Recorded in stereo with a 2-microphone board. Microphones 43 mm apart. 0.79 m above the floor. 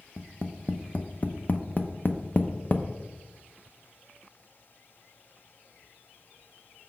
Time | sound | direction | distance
0.2 | tapping | 40° left (ahead or behind) | 0.6 m